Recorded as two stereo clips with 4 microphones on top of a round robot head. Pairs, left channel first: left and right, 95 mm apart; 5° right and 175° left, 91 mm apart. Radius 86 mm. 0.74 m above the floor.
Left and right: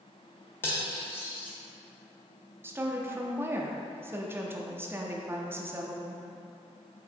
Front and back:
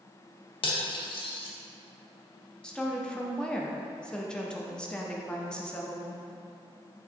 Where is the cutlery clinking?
20° left, 0.7 m.